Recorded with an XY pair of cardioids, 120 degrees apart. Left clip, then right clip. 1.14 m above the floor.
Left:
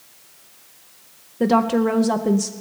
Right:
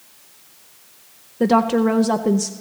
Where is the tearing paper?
No tearing paper in this recording.